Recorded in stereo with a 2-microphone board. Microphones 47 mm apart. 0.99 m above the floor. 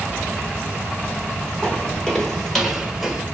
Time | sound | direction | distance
1.6 | footsteps | 20° left (ahead or behind) | 1.4 m